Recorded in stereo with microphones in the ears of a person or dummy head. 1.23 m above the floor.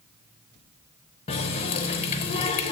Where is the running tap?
30° left (ahead or behind), 0.6 m.